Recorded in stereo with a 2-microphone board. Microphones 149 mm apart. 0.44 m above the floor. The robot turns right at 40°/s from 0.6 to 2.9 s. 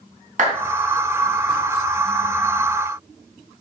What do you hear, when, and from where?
0.4 s a clap: 60° right (ahead or behind), 3 m